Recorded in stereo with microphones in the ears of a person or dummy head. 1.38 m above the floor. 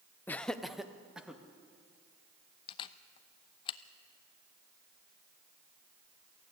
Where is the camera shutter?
35° left (ahead or behind), 0.7 m.